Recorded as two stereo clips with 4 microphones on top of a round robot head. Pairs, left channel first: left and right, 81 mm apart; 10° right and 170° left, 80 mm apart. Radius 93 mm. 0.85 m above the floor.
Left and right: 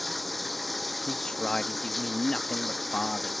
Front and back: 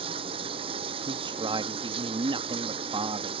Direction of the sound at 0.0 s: Straight behind.